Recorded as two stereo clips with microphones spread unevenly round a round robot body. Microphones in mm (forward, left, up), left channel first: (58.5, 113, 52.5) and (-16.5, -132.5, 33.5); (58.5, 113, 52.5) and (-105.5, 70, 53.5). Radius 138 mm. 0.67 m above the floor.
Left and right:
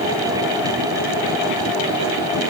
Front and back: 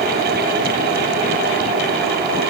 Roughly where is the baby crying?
No baby crying in this recording.